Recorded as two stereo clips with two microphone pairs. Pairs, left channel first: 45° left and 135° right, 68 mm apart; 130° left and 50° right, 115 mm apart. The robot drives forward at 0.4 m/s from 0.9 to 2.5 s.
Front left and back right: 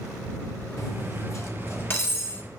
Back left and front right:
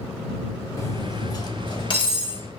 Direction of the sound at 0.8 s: 75° left.